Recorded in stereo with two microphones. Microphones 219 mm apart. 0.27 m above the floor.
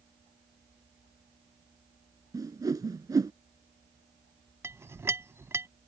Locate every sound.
2.3 s a whoosh: 15° right (ahead or behind)
4.6 s a clink: 10° right (ahead or behind)